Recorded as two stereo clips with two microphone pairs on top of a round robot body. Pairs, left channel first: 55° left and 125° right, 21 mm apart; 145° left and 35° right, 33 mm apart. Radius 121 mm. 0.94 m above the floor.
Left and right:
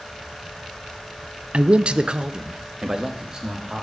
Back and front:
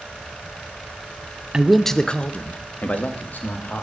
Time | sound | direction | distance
1.5 | a man speaking | 110° right | 0.6 m